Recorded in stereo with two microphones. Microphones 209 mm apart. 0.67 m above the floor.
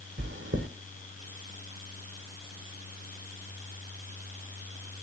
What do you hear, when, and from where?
0.2 s chewing: 65° right (ahead or behind), 2.5 m